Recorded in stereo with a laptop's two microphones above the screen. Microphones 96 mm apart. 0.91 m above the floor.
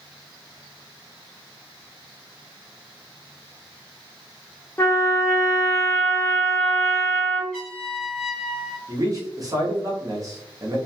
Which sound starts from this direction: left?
A trumpet, at 4.8 s.